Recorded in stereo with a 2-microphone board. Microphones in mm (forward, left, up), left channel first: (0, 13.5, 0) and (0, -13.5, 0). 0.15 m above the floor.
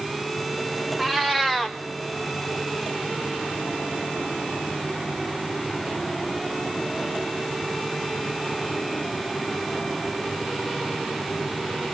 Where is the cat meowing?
5° right (ahead or behind), 2 m.